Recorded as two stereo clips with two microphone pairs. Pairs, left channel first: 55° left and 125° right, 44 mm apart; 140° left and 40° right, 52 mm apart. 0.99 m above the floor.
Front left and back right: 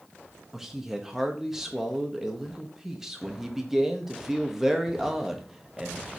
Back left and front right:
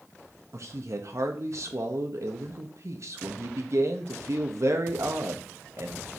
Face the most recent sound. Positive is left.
turn(degrees=-45)